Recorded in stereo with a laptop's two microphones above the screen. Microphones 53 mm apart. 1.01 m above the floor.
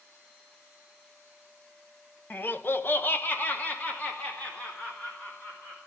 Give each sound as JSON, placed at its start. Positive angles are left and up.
{"t": 2.3, "sound": "laughter", "side_deg": 40, "distance_m": 1.1}